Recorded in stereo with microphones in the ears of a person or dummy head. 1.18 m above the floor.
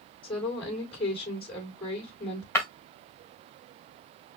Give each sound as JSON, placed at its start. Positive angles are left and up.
{"t": 0.2, "sound": "a woman speaking", "side_deg": 25, "distance_m": 3.5}
{"t": 2.5, "sound": "breaking glass", "side_deg": 15, "distance_m": 2.5}